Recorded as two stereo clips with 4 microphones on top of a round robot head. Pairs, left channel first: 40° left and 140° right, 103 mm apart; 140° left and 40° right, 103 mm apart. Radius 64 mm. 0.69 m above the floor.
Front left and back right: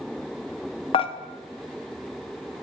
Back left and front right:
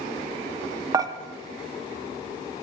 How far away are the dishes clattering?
About 0.6 m.